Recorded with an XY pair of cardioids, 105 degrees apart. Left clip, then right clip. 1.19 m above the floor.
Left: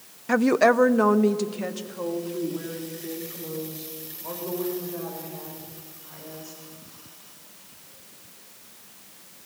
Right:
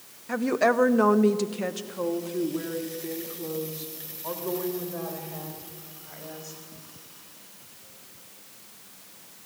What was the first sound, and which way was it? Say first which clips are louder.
A woman speaking: left 4 dB; 55° left.